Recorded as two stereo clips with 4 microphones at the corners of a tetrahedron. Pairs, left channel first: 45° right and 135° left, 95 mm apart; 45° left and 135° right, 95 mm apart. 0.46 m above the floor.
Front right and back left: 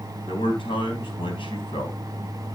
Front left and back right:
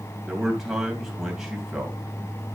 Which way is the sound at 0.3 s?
50° right.